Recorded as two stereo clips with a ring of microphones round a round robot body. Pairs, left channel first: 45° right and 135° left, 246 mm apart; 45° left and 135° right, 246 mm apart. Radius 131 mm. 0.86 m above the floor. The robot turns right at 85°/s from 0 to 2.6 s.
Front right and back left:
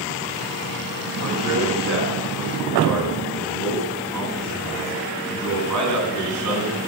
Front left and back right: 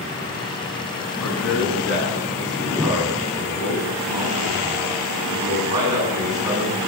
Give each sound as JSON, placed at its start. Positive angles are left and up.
{"t": 1.2, "sound": "a man speaking", "azimuth_deg": 30, "distance_m": 9.5}